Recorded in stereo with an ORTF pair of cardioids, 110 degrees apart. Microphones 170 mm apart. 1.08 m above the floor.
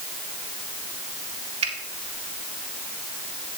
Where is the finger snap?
35° right, 2 m.